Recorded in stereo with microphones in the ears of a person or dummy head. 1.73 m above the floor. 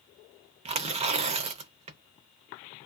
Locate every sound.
0.7 s tearing paper: 35° right (ahead or behind), 0.6 m